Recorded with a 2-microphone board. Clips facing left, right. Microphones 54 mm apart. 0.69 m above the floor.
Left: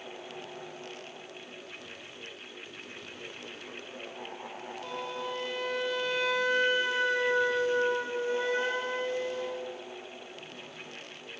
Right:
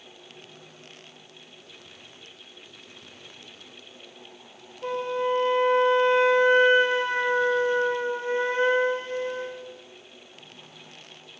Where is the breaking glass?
No breaking glass in this recording.